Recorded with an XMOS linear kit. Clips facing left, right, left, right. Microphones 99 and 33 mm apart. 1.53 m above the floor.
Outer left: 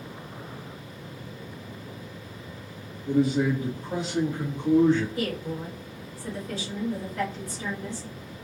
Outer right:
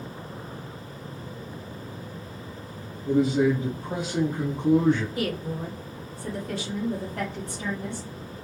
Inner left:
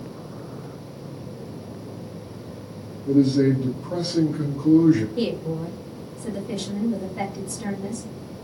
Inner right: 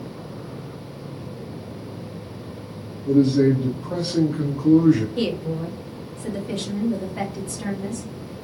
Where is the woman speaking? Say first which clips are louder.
Outer right 1 dB, inner right 1 dB; 55° right (ahead or behind), 1.6 m.